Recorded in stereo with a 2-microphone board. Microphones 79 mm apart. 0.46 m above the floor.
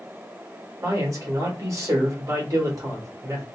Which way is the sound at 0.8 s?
45° right (ahead or behind).